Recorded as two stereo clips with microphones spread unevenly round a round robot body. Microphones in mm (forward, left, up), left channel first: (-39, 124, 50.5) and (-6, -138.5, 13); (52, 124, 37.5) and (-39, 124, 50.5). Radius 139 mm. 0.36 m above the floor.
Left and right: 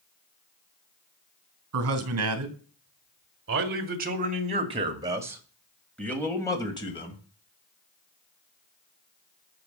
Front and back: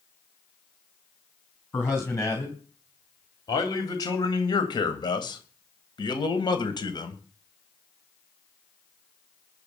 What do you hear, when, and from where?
1.7 s a man speaking: 65° right, 3.5 m; by 7.2 s 25° left, 3 m